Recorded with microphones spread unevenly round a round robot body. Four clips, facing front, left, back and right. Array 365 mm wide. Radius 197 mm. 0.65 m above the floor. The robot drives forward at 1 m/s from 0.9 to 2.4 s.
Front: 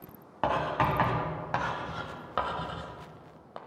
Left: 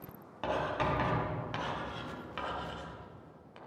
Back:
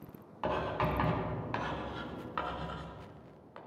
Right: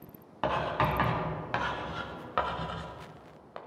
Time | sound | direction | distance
0.4 | writing | 25° right | 3.5 m